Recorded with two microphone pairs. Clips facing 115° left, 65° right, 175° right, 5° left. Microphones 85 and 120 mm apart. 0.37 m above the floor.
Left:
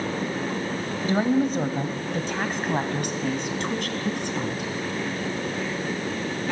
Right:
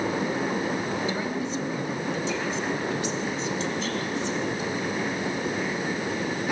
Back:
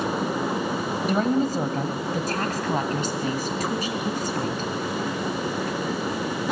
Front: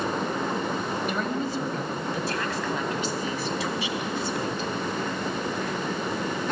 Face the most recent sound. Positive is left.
turn(degrees=140)